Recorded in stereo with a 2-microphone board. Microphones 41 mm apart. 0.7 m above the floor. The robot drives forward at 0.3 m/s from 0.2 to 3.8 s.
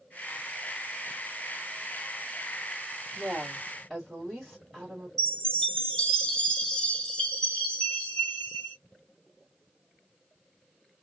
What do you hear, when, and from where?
3.1 s a woman speaking: centre (ahead or behind), 1.8 m
5.2 s a chime: 15° left (ahead or behind), 1.4 m